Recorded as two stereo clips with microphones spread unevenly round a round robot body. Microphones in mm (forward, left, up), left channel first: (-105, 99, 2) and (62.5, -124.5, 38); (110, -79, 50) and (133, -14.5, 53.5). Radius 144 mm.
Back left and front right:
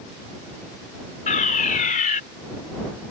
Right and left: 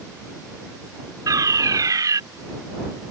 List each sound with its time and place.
1.3 s a fire alarm: 70° left